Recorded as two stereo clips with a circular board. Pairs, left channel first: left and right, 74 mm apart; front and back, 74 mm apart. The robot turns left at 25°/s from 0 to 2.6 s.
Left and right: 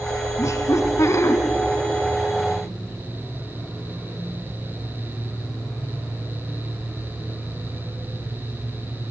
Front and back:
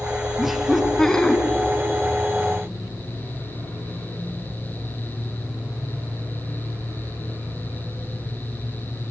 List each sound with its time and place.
0.4 s laughter: 100° left, 1.9 m; by 1.4 s 75° left, 1.9 m